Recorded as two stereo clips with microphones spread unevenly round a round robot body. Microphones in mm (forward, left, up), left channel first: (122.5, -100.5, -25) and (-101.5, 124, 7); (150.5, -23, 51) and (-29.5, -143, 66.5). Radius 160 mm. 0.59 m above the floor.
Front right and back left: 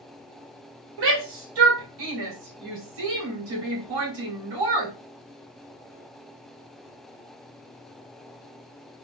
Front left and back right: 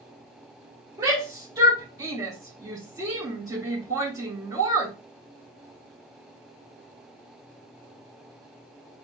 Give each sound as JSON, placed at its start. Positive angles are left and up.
{"t": 1.0, "sound": "a shout", "azimuth_deg": 135, "distance_m": 2.5}